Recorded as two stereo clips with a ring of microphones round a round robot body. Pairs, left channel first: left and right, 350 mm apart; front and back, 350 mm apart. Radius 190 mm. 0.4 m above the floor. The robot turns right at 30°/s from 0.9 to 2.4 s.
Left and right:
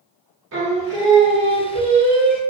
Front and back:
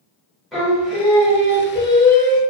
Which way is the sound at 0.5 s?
90° right.